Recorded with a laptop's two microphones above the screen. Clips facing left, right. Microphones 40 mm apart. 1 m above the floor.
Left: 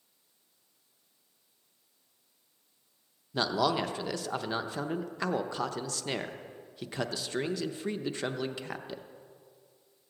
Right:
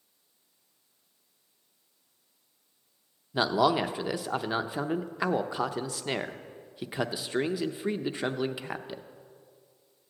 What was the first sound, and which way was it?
A man speaking, 15° right (ahead or behind).